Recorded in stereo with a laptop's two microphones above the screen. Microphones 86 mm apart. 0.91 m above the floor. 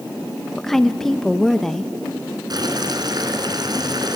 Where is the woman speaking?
5° left (ahead or behind), 0.7 m.